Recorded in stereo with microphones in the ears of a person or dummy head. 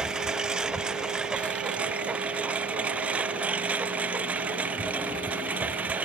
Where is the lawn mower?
5° right (ahead or behind); by 6.1 s 10° right (ahead or behind).